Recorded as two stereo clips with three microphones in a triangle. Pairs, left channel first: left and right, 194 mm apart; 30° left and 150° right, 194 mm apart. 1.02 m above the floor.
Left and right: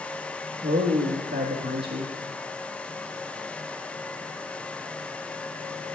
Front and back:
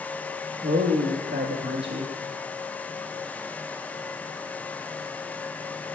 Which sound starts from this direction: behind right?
A man speaking, at 0.6 s.